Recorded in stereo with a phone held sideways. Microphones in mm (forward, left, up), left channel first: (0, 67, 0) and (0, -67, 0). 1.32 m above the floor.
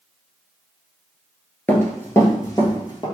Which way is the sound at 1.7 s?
10° left (ahead or behind).